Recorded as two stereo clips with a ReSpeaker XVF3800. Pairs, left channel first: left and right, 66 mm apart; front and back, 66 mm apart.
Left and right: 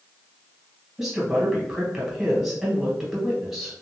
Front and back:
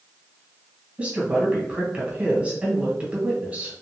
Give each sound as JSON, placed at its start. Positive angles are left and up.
{"t": 1.0, "sound": "a woman speaking", "azimuth_deg": -170, "distance_m": 1.4}